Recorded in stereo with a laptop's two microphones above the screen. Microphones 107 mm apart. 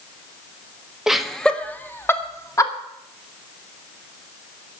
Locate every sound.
1.1 s laughter: 5° right (ahead or behind), 1.4 m; by 2.7 s 30° left (ahead or behind), 2 m